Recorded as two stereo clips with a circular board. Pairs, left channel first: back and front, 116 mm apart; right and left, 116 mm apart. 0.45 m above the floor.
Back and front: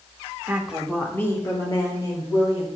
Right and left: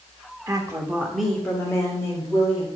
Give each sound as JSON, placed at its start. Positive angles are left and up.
{"t": 0.5, "sound": "a woman speaking", "azimuth_deg": 65, "distance_m": 1.3}